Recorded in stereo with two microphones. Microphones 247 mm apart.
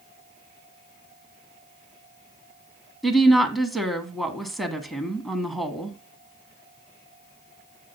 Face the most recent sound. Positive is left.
turn(degrees=0)  # may be behind; listen again after turning